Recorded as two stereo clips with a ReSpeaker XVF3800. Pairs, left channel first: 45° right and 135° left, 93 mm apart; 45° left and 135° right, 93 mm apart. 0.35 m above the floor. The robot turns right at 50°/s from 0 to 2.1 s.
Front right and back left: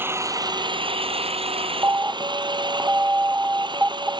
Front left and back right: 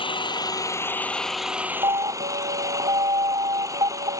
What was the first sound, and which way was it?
An engine running, 65° left.